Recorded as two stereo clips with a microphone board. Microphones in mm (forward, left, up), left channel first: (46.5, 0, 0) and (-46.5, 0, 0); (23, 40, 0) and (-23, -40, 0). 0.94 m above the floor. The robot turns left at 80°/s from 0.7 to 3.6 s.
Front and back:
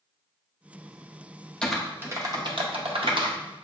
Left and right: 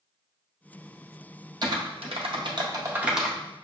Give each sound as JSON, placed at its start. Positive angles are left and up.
{"t": 1.6, "sound": "typing on a keyboard", "azimuth_deg": -80, "distance_m": 0.6}